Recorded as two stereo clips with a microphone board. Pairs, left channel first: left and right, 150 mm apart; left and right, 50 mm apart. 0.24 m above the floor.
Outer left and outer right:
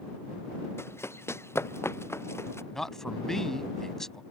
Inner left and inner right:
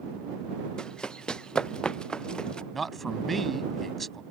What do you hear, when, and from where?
0.8 s running footsteps: 15° left (ahead or behind)
2.7 s a man speaking: 5° left (ahead or behind)